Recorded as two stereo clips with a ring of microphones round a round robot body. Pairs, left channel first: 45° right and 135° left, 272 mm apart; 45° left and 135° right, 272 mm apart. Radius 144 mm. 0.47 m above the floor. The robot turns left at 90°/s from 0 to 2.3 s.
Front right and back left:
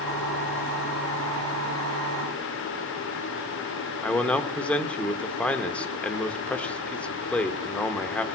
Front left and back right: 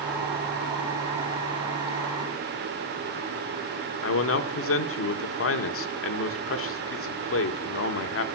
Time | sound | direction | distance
4.0 | a man speaking | 40° left | 1.0 m